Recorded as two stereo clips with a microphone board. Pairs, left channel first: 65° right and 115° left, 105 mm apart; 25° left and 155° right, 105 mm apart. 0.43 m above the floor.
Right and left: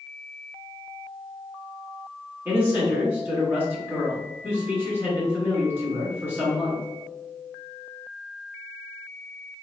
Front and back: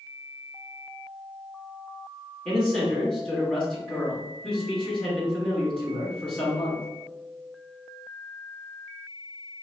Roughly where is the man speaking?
Left.